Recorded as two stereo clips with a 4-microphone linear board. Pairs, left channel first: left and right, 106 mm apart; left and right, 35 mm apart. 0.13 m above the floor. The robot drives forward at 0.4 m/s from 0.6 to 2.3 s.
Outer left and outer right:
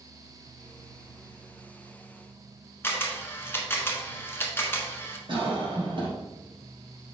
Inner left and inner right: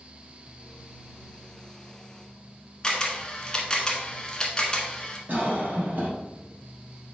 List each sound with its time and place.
2.8 s a camera shutter: 20° left (ahead or behind), 1.0 m
5.3 s a cough: 50° right (ahead or behind), 3 m